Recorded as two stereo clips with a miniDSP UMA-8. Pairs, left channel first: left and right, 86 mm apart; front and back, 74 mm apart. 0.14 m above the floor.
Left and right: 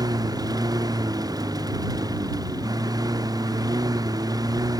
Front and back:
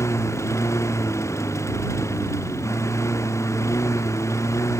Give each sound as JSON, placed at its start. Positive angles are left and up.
{"t": 0.0, "sound": "a lawn mower", "azimuth_deg": -50}